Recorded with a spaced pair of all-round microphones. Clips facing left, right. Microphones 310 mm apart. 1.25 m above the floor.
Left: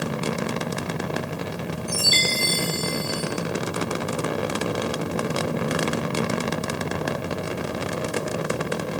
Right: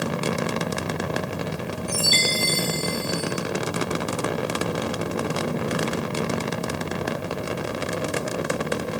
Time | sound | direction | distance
1.9 | a chime | 55° left (ahead or behind) | 6.5 m